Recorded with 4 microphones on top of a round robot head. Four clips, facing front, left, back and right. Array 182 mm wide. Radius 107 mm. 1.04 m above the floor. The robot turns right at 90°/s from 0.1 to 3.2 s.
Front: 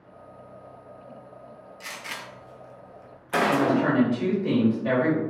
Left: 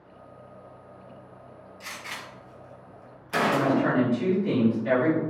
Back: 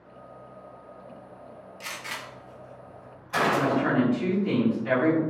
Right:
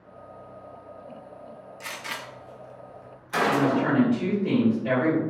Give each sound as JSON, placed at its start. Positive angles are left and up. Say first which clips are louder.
{"t": 1.8, "sound": "a gunshot", "louder": "right 3 dB, back 1 dB", "azimuth_deg": -110, "distance_m": 1.0}
{"t": 3.5, "sound": "a woman speaking", "louder": "right 1 dB, front 2 dB", "azimuth_deg": -10, "distance_m": 2.5}